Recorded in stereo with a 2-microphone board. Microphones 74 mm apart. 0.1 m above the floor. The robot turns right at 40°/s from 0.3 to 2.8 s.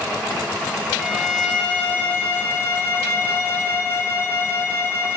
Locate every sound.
1.0 s a violin: 10° left, 0.6 m; by 5.2 s 80° left, 0.6 m